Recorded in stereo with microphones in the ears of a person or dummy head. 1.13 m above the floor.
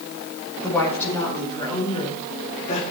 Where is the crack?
I don't hear a crack.